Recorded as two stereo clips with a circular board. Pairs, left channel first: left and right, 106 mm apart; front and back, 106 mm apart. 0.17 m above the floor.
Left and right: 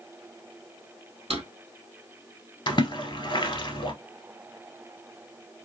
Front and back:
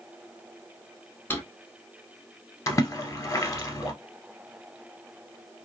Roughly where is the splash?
Ahead left.